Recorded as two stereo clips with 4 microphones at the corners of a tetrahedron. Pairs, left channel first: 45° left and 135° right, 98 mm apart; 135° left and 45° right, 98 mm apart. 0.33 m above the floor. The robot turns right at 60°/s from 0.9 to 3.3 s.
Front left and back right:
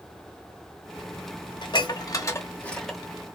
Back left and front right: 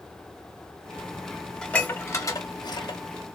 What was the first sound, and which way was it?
Dishes clattering, 55° left.